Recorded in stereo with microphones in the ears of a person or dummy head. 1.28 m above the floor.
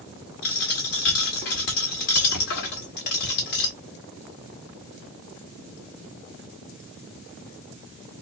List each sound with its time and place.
0.4 s a dropped coin: 40° left (ahead or behind), 1.0 m